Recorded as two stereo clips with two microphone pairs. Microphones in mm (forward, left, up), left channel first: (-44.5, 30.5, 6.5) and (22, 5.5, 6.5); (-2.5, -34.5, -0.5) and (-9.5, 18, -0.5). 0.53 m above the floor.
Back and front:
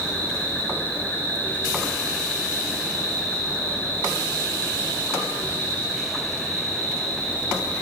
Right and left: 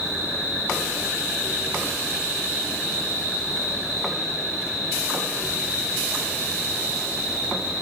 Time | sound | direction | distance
0.0 | an insect | 105° left | 2.5 m